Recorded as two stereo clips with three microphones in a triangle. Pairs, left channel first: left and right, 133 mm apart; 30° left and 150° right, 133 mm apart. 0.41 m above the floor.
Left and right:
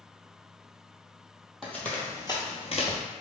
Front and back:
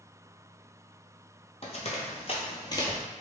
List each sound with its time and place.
1.6 s running footsteps: 5° left, 0.7 m; by 3.0 s 95° left, 0.7 m